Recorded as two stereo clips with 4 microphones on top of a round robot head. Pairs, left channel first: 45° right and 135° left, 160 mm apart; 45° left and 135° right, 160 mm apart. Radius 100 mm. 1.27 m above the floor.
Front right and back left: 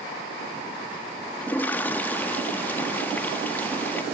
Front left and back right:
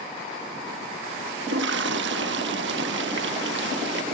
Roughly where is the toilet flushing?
Behind right.